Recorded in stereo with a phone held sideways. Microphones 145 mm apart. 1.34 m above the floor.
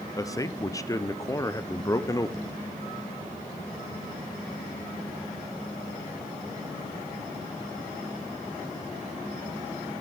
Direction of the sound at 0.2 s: 20° left (ahead or behind).